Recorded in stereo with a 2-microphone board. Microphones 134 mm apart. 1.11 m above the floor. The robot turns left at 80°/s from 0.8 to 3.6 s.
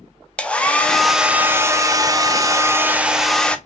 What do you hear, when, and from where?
0.4 s a hair dryer: 10° left (ahead or behind), 0.5 m